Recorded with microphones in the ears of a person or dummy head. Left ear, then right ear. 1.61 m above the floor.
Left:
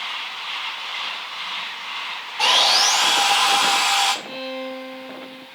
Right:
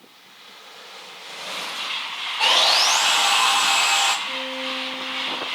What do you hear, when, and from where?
2.4 s sawing: 30° left (ahead or behind), 3 m
4.2 s a violin: 30° left (ahead or behind), 3.5 m